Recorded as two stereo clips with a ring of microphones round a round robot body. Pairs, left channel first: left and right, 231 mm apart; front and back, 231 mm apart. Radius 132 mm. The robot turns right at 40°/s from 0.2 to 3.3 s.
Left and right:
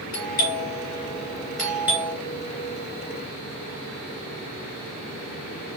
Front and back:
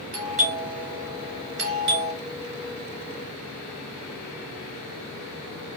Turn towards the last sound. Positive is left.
turn(degrees=-115)